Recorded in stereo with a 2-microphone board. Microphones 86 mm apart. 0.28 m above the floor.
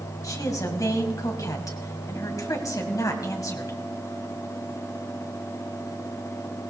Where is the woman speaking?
45° left (ahead or behind), 2 m.